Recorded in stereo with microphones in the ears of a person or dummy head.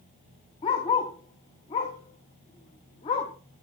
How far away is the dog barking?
About 1.3 m.